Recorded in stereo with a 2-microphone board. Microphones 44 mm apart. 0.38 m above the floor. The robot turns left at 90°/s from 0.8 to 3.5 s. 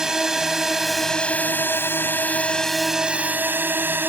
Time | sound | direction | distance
0.0 | a drone | 15° right (ahead or behind) | ?